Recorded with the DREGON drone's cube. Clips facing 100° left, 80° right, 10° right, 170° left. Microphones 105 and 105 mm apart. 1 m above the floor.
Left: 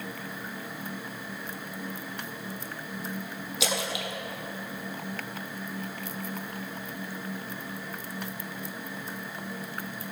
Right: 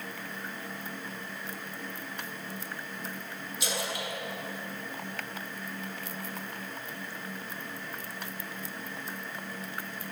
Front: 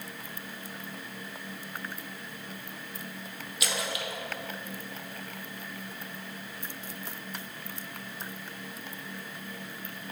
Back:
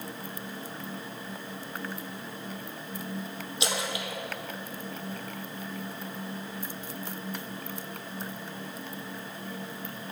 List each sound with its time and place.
3.6 s a splash: 105° left, 0.7 m